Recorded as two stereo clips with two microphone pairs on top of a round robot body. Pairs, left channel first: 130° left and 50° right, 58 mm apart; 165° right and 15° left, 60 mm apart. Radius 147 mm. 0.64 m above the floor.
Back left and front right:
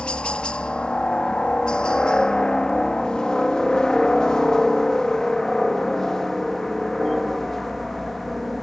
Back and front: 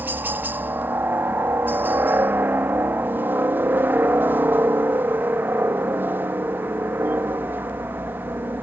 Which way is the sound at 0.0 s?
55° left.